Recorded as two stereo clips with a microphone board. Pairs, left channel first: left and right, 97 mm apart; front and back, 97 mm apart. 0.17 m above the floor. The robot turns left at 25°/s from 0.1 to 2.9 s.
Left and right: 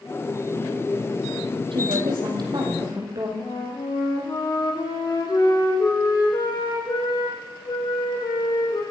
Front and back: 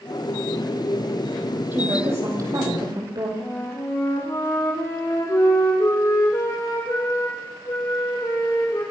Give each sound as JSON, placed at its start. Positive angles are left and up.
{"t": 1.7, "sound": "a woman speaking", "azimuth_deg": -110, "distance_m": 7.5}
{"t": 3.4, "sound": "a flute", "azimuth_deg": 50, "distance_m": 6.0}